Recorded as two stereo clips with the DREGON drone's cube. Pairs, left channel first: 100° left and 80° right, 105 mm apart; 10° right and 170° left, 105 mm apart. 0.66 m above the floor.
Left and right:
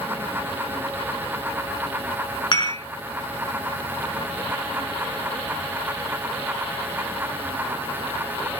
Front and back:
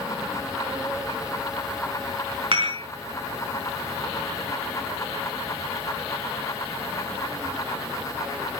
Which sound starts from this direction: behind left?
Dishes clattering, at 2.5 s.